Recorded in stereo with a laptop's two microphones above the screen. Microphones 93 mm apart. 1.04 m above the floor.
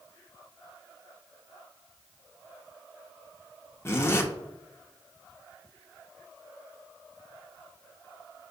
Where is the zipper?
25° left (ahead or behind), 0.6 m.